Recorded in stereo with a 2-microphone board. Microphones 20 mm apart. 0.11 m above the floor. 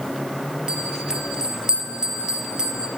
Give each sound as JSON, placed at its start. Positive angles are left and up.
{"t": 0.7, "sound": "a bell", "side_deg": -40, "distance_m": 3.0}